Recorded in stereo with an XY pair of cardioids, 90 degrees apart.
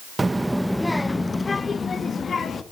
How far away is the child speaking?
About 0.7 m.